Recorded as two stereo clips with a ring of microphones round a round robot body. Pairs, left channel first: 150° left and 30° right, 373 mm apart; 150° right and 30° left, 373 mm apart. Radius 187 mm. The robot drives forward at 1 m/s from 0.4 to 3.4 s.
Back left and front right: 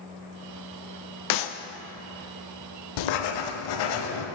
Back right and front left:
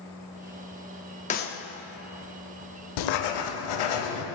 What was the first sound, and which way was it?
A clap, 145° left.